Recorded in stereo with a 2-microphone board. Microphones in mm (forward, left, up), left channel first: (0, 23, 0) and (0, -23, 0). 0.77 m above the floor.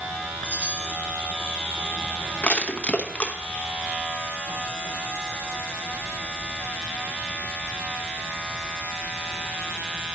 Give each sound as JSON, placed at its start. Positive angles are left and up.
{"t": 0.4, "sound": "a chime", "side_deg": -45, "distance_m": 3.0}
{"t": 2.4, "sound": "crushing", "side_deg": 25, "distance_m": 1.0}